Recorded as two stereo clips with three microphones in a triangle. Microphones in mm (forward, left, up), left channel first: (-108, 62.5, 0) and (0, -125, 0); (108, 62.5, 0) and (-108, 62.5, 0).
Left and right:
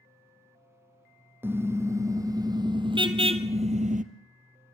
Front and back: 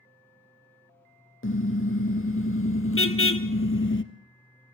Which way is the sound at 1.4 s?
20° left.